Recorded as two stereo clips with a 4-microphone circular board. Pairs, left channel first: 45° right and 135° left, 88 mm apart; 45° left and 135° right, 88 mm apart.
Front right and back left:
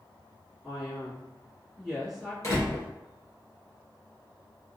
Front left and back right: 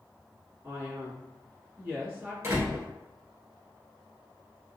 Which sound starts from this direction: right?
A door slam, at 2.4 s.